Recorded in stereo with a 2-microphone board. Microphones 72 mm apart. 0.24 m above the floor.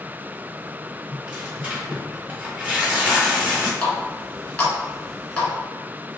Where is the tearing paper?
20° right (ahead or behind), 1.4 m.